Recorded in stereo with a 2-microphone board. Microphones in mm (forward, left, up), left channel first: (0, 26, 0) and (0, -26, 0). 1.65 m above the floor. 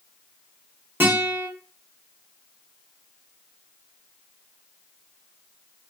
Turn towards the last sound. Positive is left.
turn(degrees=-45)  # may be behind; listen again after turning